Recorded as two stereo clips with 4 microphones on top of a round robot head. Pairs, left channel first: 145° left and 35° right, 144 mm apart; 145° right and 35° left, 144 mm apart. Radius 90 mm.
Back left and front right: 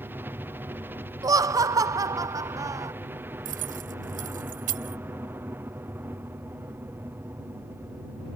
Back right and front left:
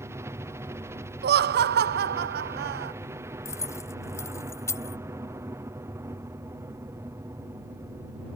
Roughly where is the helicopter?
Ahead.